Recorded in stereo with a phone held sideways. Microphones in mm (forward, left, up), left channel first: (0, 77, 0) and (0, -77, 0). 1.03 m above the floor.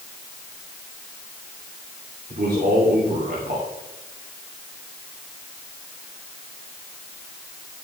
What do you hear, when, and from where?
2.3 s a man speaking: 65° right (ahead or behind), 3 m